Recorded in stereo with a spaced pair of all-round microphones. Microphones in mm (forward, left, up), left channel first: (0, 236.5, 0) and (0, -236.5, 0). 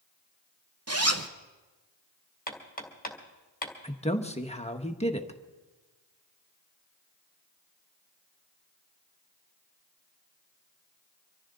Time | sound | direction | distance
0.9 | a zipper | 30° right (ahead or behind) | 0.9 m
2.5 | hammering | 20° left (ahead or behind) | 2 m
3.8 | a man speaking | 15° left (ahead or behind) | 1.0 m